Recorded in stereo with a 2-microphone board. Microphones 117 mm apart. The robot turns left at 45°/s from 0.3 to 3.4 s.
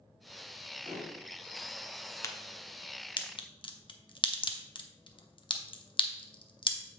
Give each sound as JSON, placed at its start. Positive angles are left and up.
{"t": 0.8, "sound": "dishes clattering", "side_deg": -55, "distance_m": 3.5}
{"t": 2.2, "sound": "a crack", "side_deg": 25, "distance_m": 0.8}